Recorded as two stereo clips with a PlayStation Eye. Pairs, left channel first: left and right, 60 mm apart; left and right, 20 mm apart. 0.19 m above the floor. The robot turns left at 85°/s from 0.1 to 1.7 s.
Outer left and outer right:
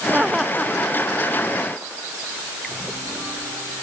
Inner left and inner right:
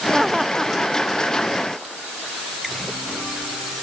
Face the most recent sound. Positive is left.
turn(degrees=65)